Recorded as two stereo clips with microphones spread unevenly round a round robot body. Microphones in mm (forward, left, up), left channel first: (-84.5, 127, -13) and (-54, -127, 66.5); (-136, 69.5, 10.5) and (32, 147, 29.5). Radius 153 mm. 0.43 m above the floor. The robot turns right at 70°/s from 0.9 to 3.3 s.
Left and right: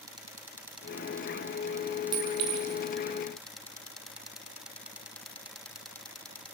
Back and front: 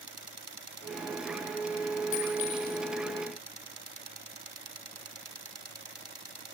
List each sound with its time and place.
2.1 s a clink: 135° right, 3 m; by 2.8 s 90° right, 3 m